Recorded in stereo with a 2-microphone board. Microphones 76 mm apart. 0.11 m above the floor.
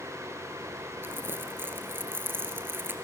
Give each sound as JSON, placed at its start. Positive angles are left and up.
{"t": 1.0, "sound": "crumpling", "side_deg": -30, "distance_m": 2.0}